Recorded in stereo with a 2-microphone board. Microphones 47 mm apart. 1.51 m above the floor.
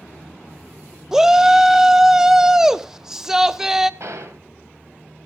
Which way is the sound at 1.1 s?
10° right (ahead or behind).